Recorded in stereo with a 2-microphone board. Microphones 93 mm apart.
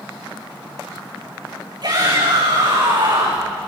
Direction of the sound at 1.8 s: 50° right (ahead or behind).